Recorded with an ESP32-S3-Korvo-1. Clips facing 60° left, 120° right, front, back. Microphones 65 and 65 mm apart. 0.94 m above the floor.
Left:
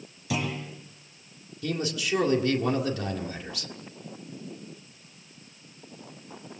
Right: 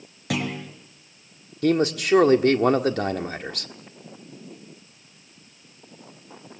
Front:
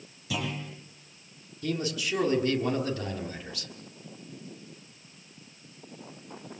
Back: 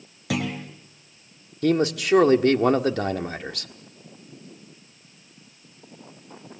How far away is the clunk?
About 5 m.